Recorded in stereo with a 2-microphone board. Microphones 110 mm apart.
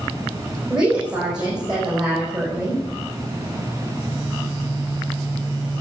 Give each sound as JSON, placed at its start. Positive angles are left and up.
{"t": 0.7, "sound": "a woman speaking", "side_deg": -10, "distance_m": 5.5}